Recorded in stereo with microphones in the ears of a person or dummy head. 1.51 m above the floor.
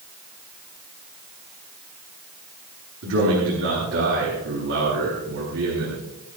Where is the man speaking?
60° right (ahead or behind), 8 m.